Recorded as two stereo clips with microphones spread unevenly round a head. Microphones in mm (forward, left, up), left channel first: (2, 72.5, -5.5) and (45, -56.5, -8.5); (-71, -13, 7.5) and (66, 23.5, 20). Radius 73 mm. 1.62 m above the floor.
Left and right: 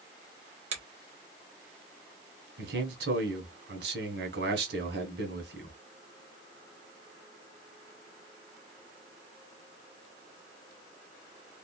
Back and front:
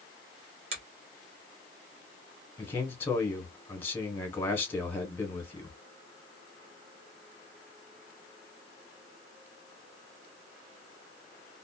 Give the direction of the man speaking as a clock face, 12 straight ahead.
3 o'clock.